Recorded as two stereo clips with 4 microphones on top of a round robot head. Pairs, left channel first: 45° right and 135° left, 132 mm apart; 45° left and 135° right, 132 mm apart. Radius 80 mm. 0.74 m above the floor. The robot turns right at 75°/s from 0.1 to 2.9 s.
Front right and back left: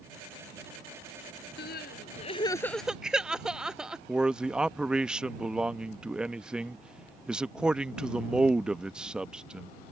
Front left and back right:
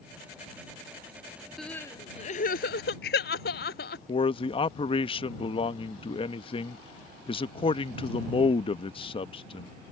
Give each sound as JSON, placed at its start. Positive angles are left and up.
{"t": 1.6, "sound": "crying", "azimuth_deg": -45}
{"t": 4.1, "sound": "a man speaking", "azimuth_deg": 55}